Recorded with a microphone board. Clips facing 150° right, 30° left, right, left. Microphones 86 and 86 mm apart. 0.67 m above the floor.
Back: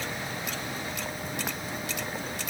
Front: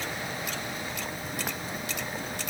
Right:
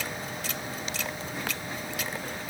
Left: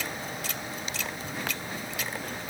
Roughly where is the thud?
No thud in this recording.